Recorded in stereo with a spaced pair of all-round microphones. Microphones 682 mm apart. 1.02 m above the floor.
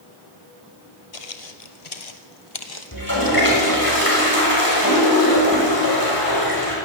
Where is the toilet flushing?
30° left (ahead or behind), 6.5 m.